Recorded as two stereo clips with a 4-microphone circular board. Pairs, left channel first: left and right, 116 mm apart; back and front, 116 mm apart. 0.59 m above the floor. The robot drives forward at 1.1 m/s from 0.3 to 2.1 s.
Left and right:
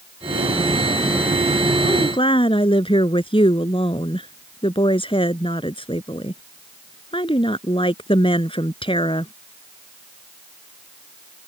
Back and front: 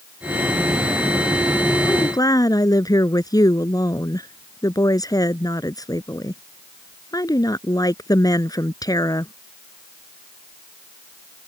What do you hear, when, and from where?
1.8 s a woman speaking: 125° left